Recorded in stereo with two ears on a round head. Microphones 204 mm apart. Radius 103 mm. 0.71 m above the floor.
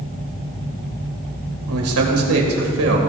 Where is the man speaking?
80° right, 2.5 m; by 3.0 s 70° right (ahead or behind), 3 m.